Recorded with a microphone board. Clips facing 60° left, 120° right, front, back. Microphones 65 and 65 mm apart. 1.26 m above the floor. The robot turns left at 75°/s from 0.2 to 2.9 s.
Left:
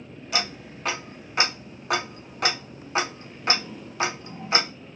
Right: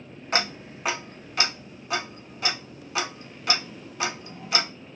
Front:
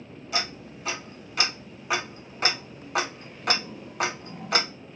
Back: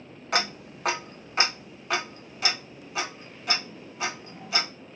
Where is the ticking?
160° right, 0.7 m; by 4.7 s 10° left, 0.7 m.